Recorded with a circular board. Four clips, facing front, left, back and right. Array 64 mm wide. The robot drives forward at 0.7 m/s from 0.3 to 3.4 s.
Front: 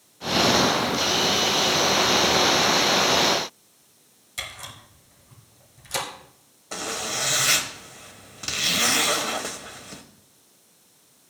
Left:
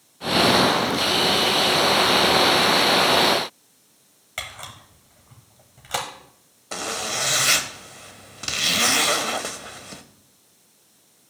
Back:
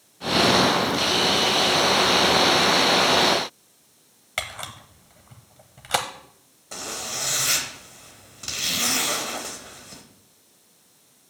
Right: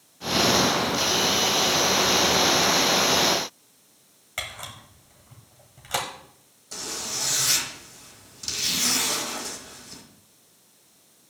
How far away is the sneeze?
No sneeze in this recording.